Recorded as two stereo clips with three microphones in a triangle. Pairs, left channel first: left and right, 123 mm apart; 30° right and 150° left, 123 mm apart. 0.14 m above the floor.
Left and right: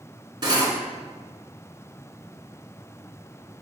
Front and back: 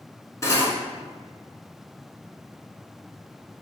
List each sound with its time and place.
0.4 s cutlery clinking: 80° right, 0.9 m